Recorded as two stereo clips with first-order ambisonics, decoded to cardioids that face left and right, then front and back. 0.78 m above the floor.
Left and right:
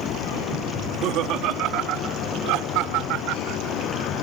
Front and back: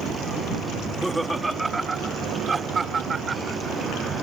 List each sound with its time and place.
0.8 s laughter: 85° right; by 3.8 s 110° right